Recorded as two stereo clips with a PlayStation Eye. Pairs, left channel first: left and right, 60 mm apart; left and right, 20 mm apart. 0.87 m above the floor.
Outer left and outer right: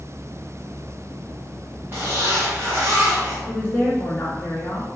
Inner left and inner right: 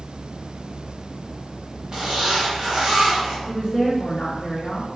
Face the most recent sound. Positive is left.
turn(degrees=25)  # may be behind; listen again after turning